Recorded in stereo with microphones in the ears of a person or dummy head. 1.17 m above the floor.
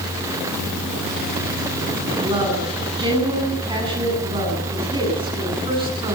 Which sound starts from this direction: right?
A woman speaking, at 2.2 s.